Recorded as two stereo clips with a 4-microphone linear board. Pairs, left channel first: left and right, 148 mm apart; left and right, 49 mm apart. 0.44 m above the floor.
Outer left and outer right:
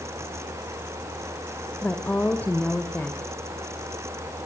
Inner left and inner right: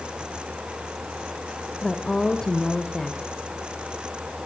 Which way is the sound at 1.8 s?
10° left (ahead or behind).